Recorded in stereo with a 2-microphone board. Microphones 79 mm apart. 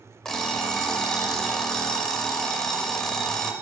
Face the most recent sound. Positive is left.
turn(degrees=10)  # may be behind; listen again after turning